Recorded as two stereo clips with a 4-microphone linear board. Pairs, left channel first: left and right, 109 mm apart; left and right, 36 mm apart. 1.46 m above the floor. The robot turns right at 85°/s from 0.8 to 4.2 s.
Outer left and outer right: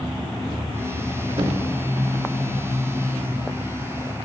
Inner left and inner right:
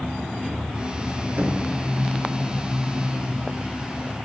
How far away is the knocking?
About 2 m.